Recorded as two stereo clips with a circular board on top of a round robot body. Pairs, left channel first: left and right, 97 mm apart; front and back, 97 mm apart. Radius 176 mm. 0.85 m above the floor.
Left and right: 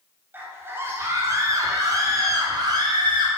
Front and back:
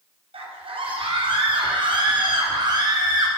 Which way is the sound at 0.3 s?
160° right.